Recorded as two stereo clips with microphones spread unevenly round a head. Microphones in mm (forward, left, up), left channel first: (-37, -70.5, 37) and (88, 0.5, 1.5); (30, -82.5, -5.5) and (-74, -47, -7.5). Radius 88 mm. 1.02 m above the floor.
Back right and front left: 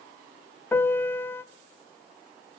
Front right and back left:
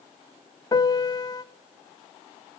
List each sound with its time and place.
0.7 s a piano: 70° right, 1.1 m